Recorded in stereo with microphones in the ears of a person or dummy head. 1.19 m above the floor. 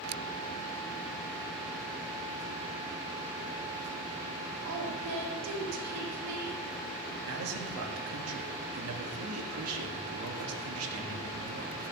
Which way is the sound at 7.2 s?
75° right (ahead or behind).